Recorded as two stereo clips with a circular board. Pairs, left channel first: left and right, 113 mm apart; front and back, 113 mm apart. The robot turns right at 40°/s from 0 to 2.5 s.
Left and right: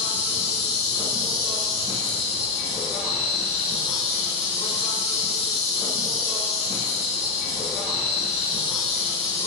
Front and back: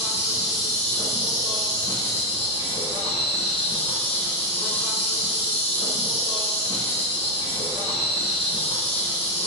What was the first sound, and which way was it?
An insect, 115° right.